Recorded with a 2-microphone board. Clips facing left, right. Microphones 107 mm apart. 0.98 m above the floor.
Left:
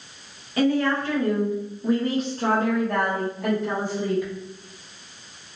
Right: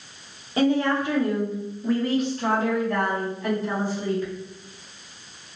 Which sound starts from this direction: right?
A woman speaking, at 0.6 s.